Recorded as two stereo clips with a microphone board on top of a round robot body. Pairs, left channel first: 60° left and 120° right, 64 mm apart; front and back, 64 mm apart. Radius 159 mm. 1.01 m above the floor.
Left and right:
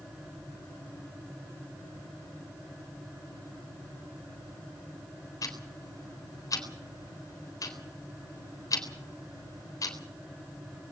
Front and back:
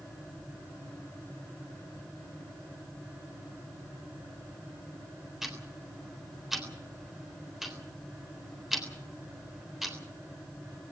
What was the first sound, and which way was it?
Ticking, 95° left.